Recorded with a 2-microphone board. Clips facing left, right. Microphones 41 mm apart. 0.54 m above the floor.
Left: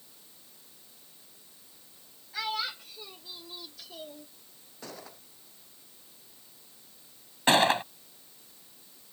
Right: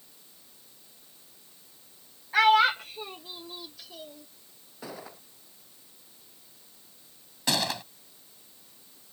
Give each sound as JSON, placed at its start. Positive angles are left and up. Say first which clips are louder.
{"t": 2.3, "sound": "a child speaking", "louder": "right 14 dB", "side_deg": -65}
{"t": 4.8, "sound": "a gunshot", "louder": "right 3 dB", "side_deg": -10}
{"t": 7.5, "sound": "a gunshot", "louder": "left 7 dB", "side_deg": 35}